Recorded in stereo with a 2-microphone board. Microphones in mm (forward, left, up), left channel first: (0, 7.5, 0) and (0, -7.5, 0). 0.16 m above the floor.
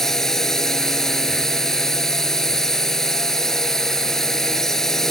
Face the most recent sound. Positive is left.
turn(degrees=35)  # may be behind; listen again after turning